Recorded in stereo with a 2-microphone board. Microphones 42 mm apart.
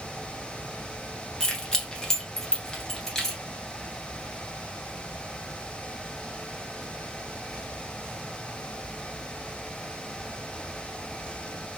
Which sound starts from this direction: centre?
Keys jangling, at 1.4 s.